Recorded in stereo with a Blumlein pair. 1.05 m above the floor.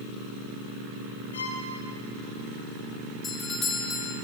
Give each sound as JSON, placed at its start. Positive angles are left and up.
{"t": 1.3, "sound": "a violin", "azimuth_deg": 65, "distance_m": 6.5}
{"t": 3.2, "sound": "a doorbell", "azimuth_deg": 15, "distance_m": 2.0}